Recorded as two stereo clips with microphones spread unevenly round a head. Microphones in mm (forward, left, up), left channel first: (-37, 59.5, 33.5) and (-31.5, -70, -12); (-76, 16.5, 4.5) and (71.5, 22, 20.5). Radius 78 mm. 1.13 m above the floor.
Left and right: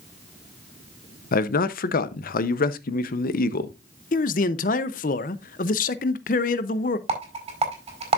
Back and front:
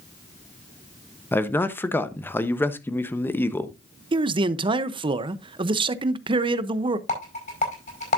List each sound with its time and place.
1.3 s a man speaking: 110° left, 0.8 m
4.1 s a man speaking: 55° left, 0.6 m
7.1 s a rattle: 130° right, 5 m